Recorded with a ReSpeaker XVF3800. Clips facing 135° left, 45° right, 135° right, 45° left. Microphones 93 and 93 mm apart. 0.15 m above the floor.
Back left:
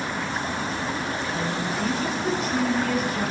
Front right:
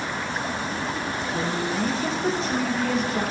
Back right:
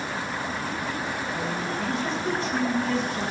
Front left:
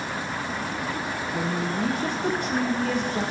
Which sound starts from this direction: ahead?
A woman speaking, at 1.3 s.